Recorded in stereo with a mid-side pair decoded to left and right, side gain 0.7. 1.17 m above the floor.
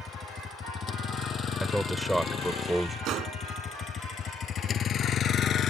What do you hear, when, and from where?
0.0 s a vehicle: 30° left; by 5.7 s 40° left
1.6 s a man speaking: 5° right
3.0 s a gunshot: 50° right